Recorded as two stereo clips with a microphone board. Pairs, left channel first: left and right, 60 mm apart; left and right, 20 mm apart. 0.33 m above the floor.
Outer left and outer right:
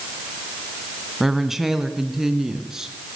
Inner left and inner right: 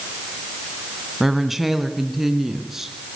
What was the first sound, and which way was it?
A woman speaking, 5° right (ahead or behind).